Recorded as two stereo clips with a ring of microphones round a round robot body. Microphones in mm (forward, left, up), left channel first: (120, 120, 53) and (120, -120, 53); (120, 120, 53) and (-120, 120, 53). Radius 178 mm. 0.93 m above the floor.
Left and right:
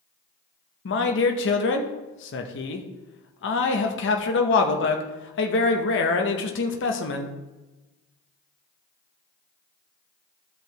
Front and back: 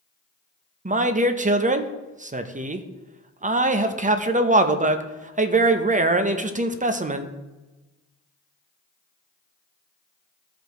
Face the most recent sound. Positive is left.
turn(degrees=125)